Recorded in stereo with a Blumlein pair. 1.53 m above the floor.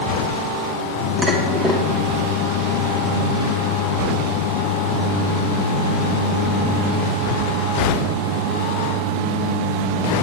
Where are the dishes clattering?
20° right, 1.7 m.